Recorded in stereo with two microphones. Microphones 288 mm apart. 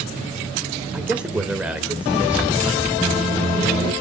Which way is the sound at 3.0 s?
15° left (ahead or behind).